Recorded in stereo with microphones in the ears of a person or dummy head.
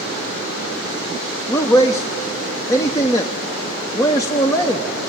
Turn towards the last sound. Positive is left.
turn(degrees=20)  # may be behind; listen again after turning